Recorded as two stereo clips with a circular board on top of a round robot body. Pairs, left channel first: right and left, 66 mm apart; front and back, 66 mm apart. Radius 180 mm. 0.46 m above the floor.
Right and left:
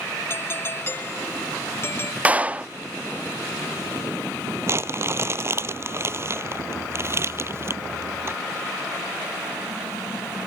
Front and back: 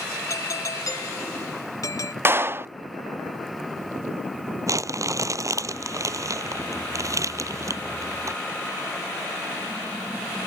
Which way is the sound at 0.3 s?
35° right.